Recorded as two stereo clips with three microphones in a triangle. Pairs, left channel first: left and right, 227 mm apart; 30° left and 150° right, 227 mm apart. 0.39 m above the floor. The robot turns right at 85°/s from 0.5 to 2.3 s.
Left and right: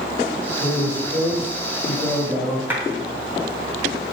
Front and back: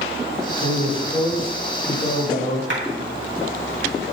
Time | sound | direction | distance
0.6 | a man speaking | 125° right | 2 m
2.7 | a clap | 170° right | 2.5 m